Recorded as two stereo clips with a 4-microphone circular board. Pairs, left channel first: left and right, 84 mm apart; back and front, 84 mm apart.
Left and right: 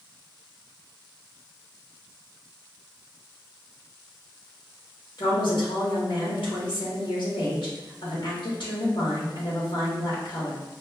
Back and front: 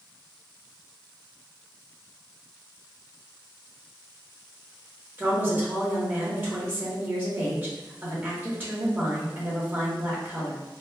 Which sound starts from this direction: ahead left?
A woman speaking, at 5.2 s.